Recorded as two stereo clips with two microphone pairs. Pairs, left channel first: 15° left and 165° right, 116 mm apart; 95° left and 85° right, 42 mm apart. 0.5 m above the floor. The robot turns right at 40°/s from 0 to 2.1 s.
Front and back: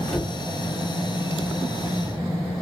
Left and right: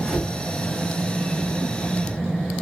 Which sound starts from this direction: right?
A cupboard door, at 0.1 s.